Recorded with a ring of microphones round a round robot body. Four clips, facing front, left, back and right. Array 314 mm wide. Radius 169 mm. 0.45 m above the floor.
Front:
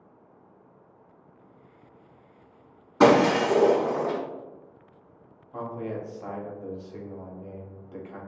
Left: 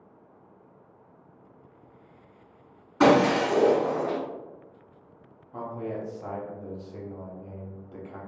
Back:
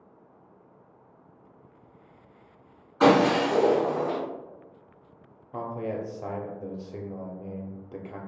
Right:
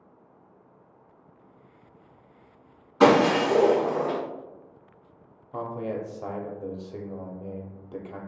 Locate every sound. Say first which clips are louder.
3.0 s breaking glass: right 1 dB, front 1 dB; 15° left, 1.5 m
5.5 s a man speaking: right 2 dB, back 1 dB; 130° right, 0.9 m